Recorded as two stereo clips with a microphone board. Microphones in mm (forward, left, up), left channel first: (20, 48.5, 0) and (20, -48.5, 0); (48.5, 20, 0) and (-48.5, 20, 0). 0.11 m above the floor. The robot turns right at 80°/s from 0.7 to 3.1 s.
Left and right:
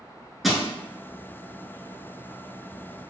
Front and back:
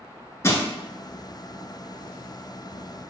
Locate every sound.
0.4 s crushing: straight ahead, 0.7 m